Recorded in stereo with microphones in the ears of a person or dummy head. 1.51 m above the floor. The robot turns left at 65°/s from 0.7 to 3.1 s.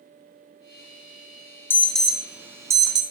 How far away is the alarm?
About 0.8 m.